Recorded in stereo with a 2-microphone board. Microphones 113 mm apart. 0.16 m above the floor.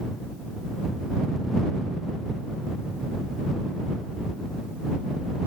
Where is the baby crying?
No baby crying in this recording.